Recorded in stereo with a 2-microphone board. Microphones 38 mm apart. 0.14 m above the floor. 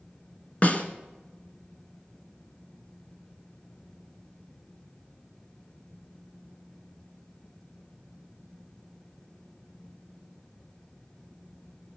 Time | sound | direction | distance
0.6 | a snare drum | 40° left (ahead or behind) | 1.6 m